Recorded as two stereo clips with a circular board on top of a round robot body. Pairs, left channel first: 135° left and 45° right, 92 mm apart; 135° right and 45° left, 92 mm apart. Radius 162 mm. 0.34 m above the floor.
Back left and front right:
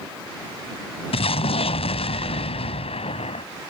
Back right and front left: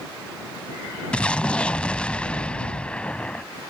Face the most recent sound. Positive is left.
turn(degrees=145)